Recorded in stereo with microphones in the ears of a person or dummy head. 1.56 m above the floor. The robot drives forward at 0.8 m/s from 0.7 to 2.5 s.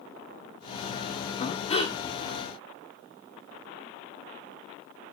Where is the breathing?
40° left (ahead or behind), 1.1 m; by 2.0 s 30° left (ahead or behind), 1.4 m.